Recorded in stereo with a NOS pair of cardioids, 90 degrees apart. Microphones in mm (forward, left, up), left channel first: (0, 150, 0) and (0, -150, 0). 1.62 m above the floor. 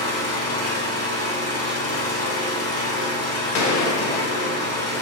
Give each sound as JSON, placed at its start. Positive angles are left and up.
{"t": 0.0, "sound": "an engine running", "azimuth_deg": 55, "distance_m": 1.8}
{"t": 3.5, "sound": "a gunshot", "azimuth_deg": 65, "distance_m": 0.8}